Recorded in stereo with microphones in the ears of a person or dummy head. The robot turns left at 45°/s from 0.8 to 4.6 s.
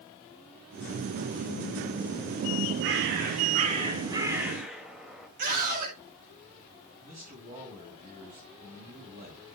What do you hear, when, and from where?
2.8 s a bird: 95° right, 2.5 m; by 5.3 s straight behind, 2.5 m
5.4 s a scream: 55° right (ahead or behind), 4.5 m
7.0 s a man speaking: 45° right (ahead or behind), 7.5 m